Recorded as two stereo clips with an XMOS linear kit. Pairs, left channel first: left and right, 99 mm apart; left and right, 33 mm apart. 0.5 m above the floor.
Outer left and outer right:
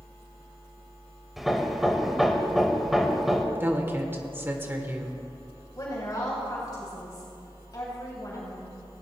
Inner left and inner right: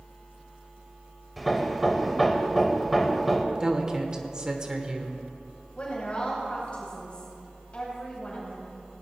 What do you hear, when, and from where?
1.4 s hammering: centre (ahead or behind), 1.2 m
3.5 s a woman speaking: 25° right (ahead or behind), 1.5 m
5.8 s a woman speaking: 40° left (ahead or behind), 3.5 m